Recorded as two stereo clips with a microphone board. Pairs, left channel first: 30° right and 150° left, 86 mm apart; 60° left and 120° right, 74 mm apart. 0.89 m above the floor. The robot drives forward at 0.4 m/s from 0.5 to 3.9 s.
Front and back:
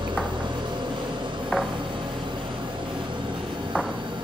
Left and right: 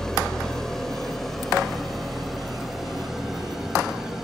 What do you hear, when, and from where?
0.0 s an engine running: 145° left, 2.5 m; by 4.3 s 155° left, 4 m